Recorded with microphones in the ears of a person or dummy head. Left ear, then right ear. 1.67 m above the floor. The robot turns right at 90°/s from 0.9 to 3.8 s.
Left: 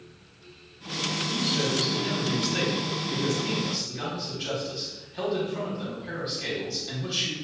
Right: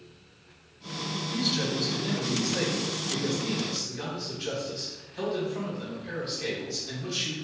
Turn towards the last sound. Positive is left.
turn(degrees=170)